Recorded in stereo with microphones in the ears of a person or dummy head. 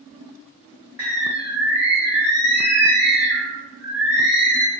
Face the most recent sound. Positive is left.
turn(degrees=-15)  # may be behind; listen again after turning